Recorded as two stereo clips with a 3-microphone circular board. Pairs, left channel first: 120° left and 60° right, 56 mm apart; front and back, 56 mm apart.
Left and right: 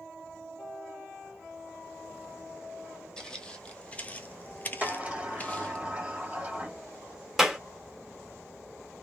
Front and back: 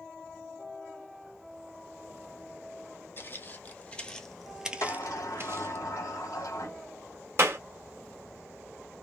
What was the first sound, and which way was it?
Footsteps, 45° left.